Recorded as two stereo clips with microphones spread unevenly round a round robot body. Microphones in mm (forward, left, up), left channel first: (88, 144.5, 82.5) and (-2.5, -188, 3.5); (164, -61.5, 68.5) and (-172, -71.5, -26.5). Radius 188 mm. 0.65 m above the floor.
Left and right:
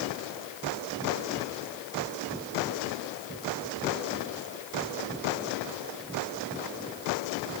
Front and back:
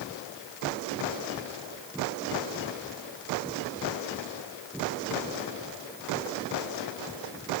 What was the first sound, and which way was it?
Only background noise.